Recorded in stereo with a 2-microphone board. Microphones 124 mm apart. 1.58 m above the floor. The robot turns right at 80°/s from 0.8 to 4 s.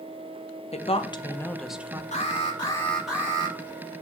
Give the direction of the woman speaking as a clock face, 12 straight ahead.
8 o'clock.